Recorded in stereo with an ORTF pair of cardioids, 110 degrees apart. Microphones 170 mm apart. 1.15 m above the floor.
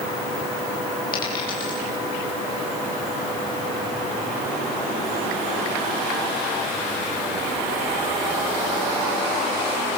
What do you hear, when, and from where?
1.1 s a dropped coin: 60° left, 9.5 m